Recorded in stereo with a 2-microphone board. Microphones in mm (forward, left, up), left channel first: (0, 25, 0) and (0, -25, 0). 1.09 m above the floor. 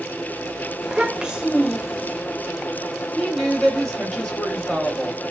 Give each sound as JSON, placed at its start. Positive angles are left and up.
{"t": 0.8, "sound": "a child speaking", "side_deg": -15, "distance_m": 0.7}
{"t": 3.1, "sound": "a woman speaking", "side_deg": 15, "distance_m": 1.0}